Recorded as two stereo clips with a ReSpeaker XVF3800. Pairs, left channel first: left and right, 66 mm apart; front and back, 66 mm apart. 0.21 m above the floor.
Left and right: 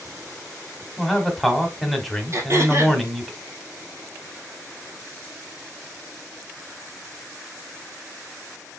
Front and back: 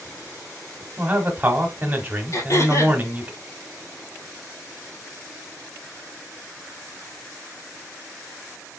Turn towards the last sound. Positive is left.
turn(degrees=-40)